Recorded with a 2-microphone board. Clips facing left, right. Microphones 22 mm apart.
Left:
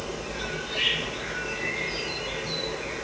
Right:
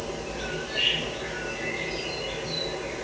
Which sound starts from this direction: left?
An insect, at 0.0 s.